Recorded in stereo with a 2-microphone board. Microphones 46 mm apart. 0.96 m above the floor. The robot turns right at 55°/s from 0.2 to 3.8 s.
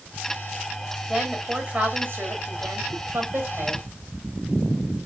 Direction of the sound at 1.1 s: Straight behind.